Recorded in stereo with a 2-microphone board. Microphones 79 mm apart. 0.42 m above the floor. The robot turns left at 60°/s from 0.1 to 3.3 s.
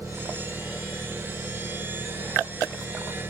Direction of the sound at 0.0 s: 140° right.